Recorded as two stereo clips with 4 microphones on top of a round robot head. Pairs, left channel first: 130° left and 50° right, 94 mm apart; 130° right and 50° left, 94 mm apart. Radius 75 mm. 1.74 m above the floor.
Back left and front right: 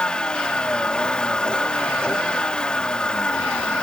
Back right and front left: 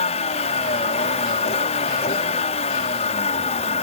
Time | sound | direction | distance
0.0 | a vehicle | 150° right | ?